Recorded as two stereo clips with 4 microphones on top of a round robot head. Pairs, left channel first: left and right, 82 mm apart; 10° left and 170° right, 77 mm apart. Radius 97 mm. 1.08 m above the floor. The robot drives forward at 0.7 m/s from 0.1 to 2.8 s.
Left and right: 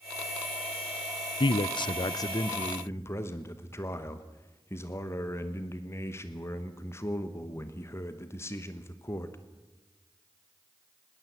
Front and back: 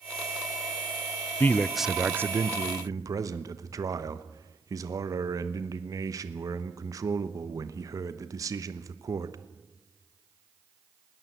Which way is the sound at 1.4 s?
70° left.